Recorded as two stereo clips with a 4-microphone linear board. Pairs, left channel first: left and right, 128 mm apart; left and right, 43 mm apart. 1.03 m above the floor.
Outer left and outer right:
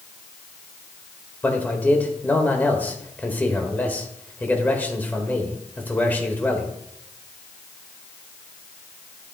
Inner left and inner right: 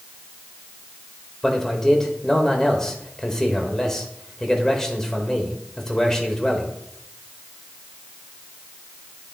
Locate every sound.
1.4 s a man speaking: 15° left (ahead or behind), 1.6 m